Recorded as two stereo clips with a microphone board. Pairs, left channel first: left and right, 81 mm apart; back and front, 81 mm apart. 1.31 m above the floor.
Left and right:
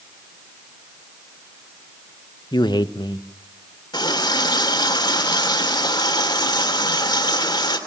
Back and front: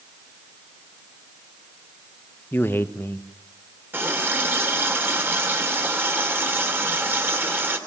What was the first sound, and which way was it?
A man speaking, 115° left.